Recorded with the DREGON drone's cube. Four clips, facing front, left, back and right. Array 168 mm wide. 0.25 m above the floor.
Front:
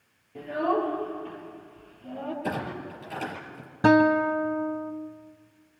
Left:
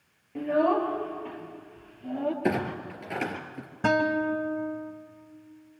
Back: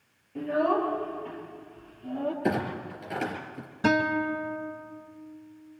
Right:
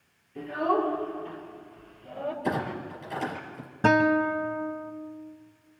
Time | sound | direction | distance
0.3 | a child speaking | 80° left | 5 m
2.4 | a clunk | 120° left | 4 m
3.8 | a guitar | 20° right | 1.0 m